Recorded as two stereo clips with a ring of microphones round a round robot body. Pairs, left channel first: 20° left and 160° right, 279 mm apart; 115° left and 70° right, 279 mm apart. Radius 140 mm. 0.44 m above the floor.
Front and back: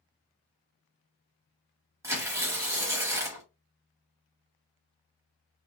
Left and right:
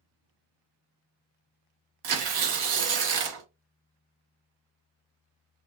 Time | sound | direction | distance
2.0 | tearing paper | 75° right | 0.8 m